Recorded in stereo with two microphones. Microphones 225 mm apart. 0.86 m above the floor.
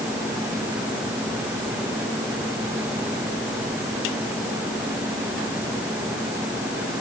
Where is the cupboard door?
I don't hear a cupboard door.